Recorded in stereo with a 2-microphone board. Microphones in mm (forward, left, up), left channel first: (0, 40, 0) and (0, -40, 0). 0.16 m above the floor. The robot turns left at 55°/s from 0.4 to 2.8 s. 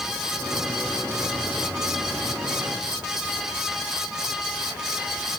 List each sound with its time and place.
Only background noise.